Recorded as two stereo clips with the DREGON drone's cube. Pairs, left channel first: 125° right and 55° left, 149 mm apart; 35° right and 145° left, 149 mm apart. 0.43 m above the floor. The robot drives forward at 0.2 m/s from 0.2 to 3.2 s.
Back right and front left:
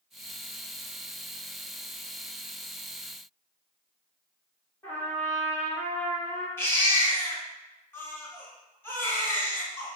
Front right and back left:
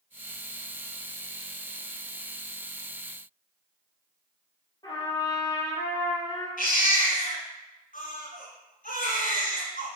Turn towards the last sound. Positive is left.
turn(degrees=-50)